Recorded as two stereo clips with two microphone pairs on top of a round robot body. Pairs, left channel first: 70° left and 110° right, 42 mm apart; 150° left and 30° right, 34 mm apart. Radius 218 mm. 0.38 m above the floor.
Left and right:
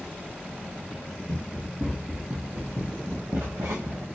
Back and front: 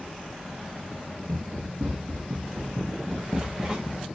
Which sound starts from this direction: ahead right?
Running footsteps, at 1.3 s.